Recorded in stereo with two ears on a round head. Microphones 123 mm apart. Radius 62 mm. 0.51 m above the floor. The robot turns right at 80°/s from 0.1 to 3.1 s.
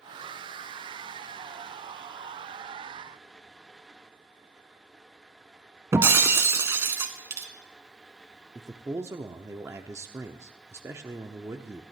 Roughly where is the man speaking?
Centre.